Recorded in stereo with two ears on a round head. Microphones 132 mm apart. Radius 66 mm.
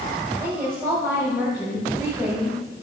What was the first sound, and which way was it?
A woman speaking, 5° right (ahead or behind).